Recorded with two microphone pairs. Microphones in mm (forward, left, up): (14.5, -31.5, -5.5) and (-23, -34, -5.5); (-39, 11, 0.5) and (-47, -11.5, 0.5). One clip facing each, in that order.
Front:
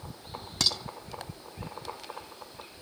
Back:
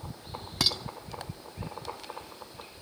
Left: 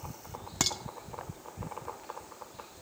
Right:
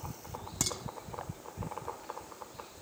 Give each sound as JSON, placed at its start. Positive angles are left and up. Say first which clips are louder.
{"t": 0.6, "sound": "dishes clattering", "louder": "even, left 4 dB", "azimuth_deg": 105, "distance_m": 1.2}